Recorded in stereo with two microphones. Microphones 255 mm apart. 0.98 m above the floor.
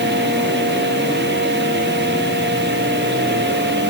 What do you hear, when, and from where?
Only background noise.